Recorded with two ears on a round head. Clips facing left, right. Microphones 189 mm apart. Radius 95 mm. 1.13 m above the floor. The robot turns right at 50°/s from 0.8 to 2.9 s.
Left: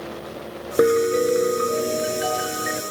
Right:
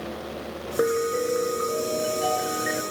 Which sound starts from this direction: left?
A piano, at 0.8 s.